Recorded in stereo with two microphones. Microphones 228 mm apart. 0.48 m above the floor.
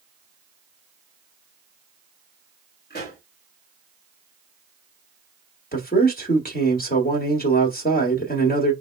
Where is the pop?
45° left (ahead or behind), 2.5 m.